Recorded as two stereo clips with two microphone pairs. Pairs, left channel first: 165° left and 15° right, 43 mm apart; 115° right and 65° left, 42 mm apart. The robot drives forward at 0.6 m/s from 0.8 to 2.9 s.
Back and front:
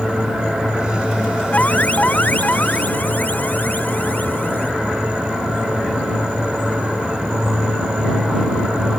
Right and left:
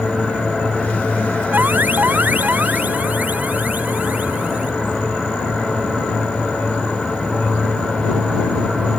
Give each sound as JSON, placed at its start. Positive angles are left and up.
{"t": 1.5, "sound": "an alarm", "azimuth_deg": 105}